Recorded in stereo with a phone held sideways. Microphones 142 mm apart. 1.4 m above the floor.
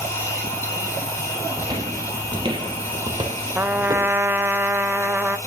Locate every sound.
0.0 s a machine running: 20° left (ahead or behind), 4.5 m
1.6 s footsteps: 25° right (ahead or behind), 1.7 m
3.5 s a trumpet: 15° right (ahead or behind), 0.5 m